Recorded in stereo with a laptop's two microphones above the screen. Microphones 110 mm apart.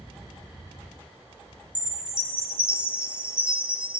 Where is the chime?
10° right (ahead or behind), 0.7 m.